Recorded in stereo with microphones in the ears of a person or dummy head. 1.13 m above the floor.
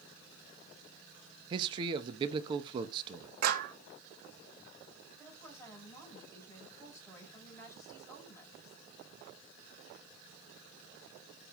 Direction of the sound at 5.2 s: 15° left (ahead or behind).